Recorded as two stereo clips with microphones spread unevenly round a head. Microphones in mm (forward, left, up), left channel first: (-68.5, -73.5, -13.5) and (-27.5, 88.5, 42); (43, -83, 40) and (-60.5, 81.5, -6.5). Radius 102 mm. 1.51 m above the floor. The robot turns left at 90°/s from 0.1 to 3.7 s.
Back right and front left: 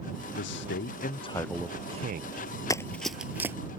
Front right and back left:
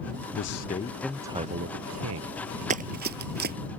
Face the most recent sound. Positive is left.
turn(degrees=80)